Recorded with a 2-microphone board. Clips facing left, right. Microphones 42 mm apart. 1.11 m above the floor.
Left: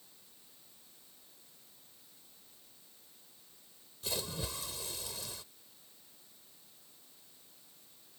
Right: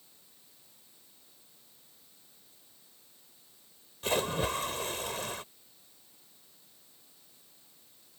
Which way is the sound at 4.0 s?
55° right (ahead or behind).